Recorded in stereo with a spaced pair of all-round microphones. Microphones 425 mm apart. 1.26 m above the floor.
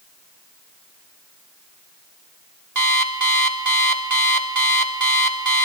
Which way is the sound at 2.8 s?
45° right (ahead or behind).